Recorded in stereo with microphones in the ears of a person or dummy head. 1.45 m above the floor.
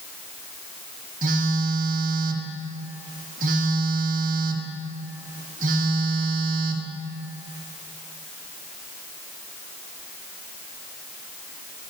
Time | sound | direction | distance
1.2 | a phone buzzing | 40° right (ahead or behind) | 1.1 m